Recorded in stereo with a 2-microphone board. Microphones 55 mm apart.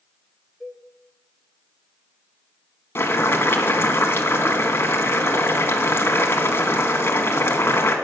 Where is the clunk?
I don't hear a clunk.